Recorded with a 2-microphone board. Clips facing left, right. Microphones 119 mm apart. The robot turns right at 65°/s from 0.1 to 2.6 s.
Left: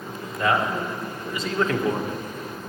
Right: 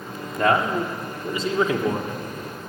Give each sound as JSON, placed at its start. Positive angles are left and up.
{"t": 0.4, "sound": "a man speaking", "azimuth_deg": -100, "distance_m": 1.4}